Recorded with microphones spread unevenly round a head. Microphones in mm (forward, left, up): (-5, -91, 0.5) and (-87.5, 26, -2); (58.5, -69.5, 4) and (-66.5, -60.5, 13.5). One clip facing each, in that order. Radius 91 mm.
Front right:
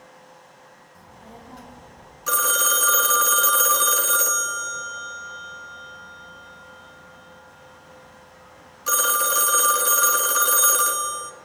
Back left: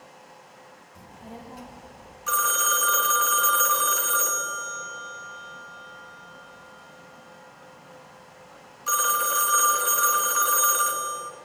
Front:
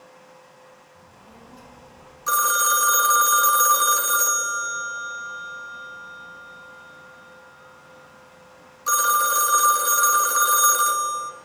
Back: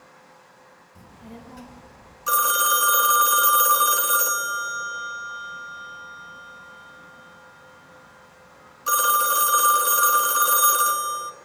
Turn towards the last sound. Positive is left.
turn(degrees=-105)